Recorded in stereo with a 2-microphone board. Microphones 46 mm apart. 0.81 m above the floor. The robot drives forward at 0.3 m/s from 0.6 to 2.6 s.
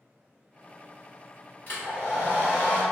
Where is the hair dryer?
40° left (ahead or behind), 1.2 m; by 2.8 s 35° left (ahead or behind), 1.4 m.